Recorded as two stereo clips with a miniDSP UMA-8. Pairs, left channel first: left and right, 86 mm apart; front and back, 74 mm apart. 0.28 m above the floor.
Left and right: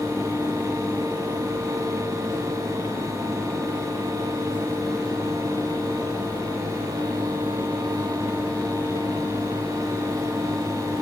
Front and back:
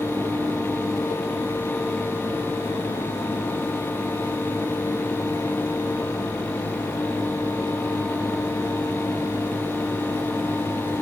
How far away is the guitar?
No guitar in this recording.